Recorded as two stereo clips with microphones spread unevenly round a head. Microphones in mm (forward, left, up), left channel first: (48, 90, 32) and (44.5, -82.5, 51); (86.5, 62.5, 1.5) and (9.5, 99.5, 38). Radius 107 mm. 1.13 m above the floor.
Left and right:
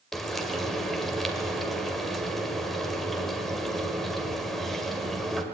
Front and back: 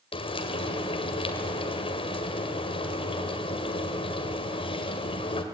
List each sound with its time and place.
0.1 s frying: straight ahead, 2 m